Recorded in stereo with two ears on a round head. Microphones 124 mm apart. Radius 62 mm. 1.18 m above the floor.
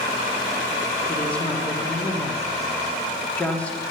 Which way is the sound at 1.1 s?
10° left (ahead or behind).